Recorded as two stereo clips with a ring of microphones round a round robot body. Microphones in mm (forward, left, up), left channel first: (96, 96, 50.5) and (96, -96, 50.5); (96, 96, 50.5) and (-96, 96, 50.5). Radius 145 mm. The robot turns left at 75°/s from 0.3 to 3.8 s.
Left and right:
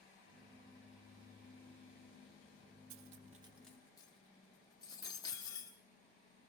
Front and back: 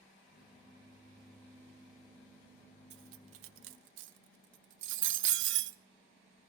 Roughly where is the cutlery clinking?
Behind right.